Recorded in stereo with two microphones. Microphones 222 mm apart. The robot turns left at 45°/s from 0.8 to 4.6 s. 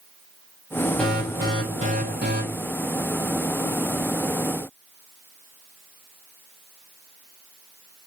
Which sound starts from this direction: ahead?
An alarm, at 1.0 s.